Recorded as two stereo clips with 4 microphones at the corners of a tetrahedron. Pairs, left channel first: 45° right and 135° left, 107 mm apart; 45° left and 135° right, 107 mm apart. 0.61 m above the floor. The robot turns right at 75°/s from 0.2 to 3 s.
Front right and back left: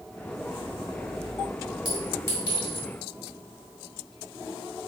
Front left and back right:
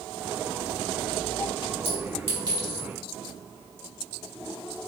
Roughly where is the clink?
Behind right.